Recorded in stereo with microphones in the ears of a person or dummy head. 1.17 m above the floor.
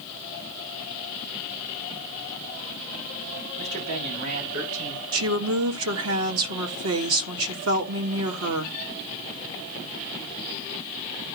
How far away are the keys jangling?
I don't hear keys jangling.